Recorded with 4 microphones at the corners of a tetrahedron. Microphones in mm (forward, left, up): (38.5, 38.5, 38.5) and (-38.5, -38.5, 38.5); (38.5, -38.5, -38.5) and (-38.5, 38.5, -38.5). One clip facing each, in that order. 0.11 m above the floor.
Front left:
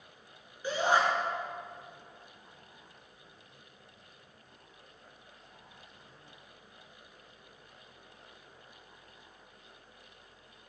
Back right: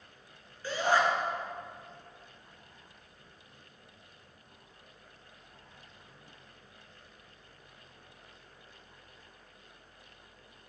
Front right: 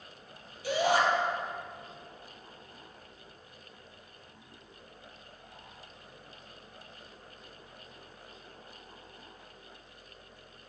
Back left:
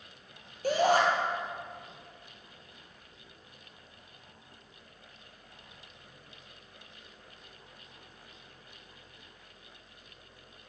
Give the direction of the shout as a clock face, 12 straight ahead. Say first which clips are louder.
Even, back left 2 dB; 8 o'clock.